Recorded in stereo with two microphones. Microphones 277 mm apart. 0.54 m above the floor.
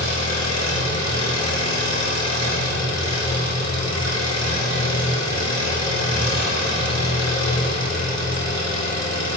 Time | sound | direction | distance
0.0 | an engine running | 70° left (ahead or behind) | 5.5 m